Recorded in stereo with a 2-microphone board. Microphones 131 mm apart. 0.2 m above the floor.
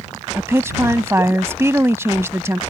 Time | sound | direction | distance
0.3 | a woman speaking | 20° right (ahead or behind) | ?